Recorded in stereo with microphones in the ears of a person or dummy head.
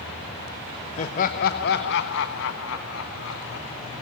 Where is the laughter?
40° left (ahead or behind), 1.1 m; by 3.7 s 85° left, 1.8 m.